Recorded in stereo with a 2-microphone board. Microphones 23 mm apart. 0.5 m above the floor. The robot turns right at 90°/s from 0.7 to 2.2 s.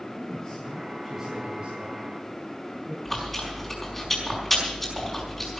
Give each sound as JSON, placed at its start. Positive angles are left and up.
{"t": 0.2, "sound": "a man speaking", "azimuth_deg": 145, "distance_m": 4.5}
{"t": 3.0, "sound": "chewing", "side_deg": 10, "distance_m": 5.0}